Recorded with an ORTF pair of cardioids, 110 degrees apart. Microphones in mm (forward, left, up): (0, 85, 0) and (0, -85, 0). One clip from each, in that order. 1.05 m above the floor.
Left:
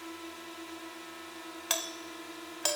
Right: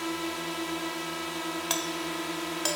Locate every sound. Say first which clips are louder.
0.0 s a drone: right 11 dB; 65° right
1.7 s a doorbell: right 1 dB; straight ahead